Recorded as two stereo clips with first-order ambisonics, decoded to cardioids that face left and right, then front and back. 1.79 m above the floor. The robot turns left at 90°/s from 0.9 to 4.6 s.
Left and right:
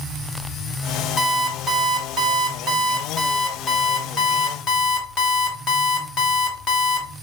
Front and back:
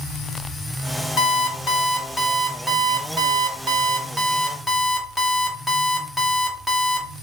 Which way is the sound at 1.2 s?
35° left.